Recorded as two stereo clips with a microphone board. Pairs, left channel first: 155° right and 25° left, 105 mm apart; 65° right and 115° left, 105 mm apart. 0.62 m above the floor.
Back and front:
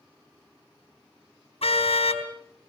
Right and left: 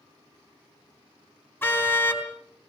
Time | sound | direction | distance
1.6 | a car horn | 140° right | 3.5 m